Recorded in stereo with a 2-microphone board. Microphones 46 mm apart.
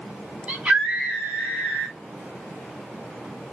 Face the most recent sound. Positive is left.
turn(degrees=-25)  # may be behind; listen again after turning